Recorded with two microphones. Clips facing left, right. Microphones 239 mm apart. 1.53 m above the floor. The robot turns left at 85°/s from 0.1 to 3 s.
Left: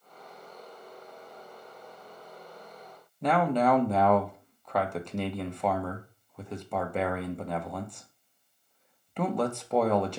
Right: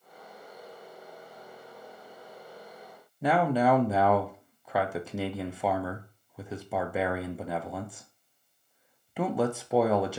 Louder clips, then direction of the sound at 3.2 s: Even; 5° right (ahead or behind).